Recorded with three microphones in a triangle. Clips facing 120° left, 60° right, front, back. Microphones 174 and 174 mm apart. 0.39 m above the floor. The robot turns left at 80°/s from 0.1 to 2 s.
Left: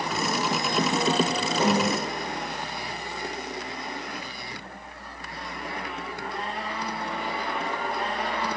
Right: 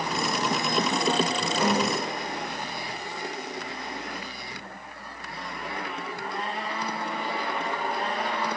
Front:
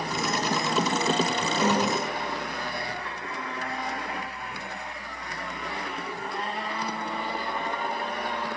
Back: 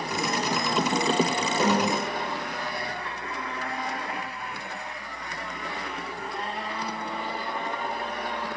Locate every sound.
1.6 s a snare drum: 170° left, 0.9 m; by 2.0 s 135° left, 0.9 m